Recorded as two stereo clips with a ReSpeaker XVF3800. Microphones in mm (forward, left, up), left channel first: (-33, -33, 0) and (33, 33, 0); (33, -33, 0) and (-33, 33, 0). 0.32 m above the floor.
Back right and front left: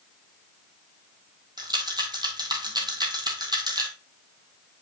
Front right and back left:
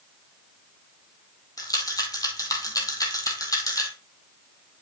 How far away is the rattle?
About 1.5 m.